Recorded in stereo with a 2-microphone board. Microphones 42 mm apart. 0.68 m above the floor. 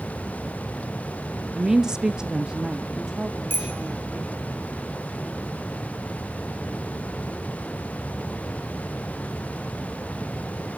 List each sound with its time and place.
1.6 s a woman speaking: 15° right (ahead or behind), 0.9 m; by 4.4 s 5° right (ahead or behind), 2 m
3.5 s a bicycle bell: 60° left (ahead or behind), 2.5 m